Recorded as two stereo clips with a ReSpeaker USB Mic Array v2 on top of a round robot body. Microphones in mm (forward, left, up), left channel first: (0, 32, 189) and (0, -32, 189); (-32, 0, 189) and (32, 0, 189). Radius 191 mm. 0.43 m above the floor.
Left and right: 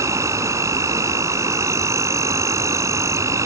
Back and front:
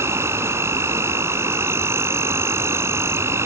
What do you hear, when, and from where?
0.0 s an insect: 50° right